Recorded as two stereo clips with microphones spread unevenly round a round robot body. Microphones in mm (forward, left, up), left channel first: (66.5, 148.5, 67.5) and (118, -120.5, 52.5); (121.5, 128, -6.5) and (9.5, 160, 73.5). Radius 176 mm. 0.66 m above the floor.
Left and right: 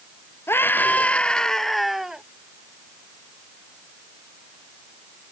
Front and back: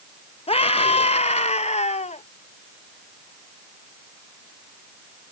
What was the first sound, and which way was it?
A scream, 20° left.